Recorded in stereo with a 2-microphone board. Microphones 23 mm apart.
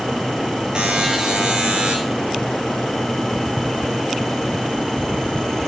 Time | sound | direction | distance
0.8 | a buzzer | 35° right (ahead or behind) | 8 m